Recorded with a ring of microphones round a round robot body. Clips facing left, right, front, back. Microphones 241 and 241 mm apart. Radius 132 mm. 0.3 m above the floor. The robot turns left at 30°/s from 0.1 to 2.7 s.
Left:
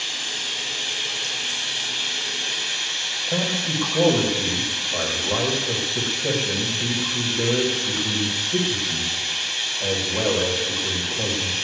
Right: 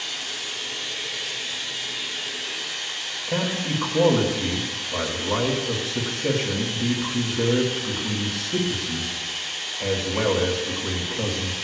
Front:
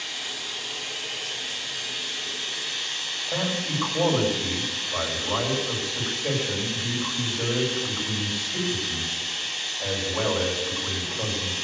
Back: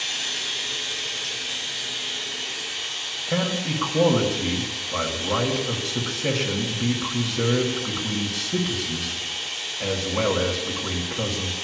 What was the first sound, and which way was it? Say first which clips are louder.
Running water: left 1 dB, back 2 dB; 140° left.